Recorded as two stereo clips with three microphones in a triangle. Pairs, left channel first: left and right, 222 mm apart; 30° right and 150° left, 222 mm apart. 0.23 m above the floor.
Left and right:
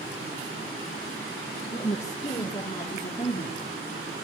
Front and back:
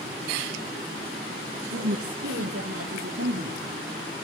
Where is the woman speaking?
155° left, 5 m; by 3.7 s 140° left, 4.5 m.